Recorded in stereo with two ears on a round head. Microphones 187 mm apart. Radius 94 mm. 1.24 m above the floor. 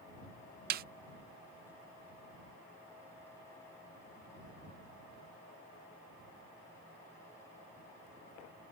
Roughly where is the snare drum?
Right.